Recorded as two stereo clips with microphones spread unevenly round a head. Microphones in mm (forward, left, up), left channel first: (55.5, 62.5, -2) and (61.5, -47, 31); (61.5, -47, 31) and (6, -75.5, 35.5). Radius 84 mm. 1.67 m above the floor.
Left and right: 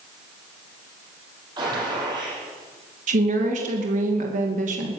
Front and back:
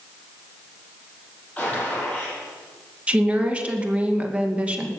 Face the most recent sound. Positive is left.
turn(degrees=-85)